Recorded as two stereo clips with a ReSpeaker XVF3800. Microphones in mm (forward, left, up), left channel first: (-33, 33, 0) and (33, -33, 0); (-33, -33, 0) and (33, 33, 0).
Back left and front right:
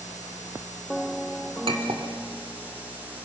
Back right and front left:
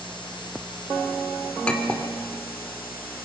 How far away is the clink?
About 2.5 m.